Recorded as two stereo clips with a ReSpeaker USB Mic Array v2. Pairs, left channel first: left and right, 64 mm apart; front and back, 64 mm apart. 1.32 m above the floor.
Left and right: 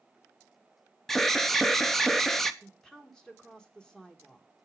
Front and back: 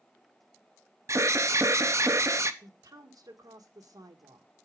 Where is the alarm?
175° left, 0.7 m.